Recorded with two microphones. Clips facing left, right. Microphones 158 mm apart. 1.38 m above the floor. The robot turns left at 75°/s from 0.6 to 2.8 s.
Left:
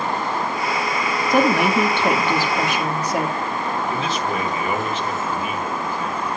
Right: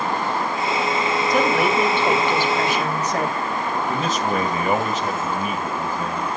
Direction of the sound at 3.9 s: 45° right (ahead or behind).